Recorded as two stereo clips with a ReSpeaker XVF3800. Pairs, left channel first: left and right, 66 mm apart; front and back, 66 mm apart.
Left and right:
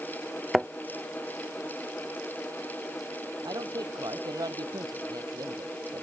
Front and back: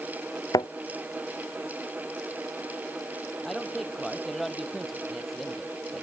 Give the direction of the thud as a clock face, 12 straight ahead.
12 o'clock.